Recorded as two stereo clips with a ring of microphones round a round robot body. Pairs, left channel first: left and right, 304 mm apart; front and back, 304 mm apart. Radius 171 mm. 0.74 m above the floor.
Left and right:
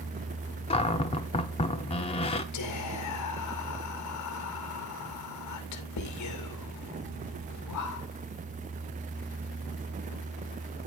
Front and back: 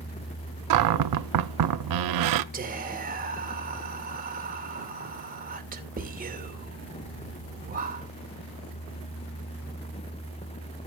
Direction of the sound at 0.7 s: 165° left.